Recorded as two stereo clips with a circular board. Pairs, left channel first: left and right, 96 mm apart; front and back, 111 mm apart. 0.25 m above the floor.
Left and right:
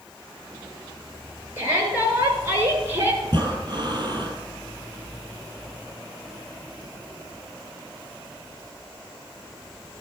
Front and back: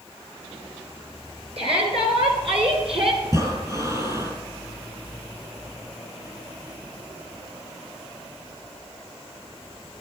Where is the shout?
150° right, 4.5 m.